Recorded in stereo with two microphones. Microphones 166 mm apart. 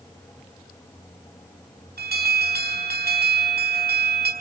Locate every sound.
2.0 s an alarm: 75° right (ahead or behind), 5 m